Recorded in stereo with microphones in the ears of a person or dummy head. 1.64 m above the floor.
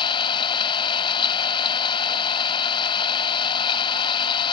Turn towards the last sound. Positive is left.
turn(degrees=25)  # may be behind; listen again after turning